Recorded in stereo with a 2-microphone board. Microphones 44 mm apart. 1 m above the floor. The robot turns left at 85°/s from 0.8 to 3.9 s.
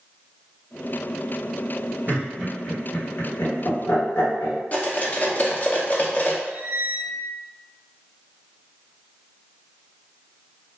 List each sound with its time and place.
2.1 s laughter: 35° right (ahead or behind), 1.1 m; by 4.6 s 60° left (ahead or behind), 1.1 m
4.7 s cutlery clinking: 35° left (ahead or behind), 0.5 m
6.5 s a squeak: 45° right (ahead or behind), 0.5 m